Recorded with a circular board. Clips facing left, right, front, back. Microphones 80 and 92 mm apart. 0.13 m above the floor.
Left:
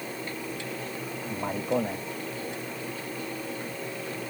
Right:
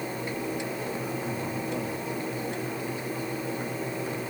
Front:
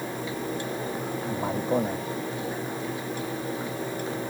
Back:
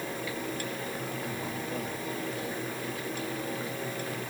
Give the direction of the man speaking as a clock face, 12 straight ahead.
11 o'clock.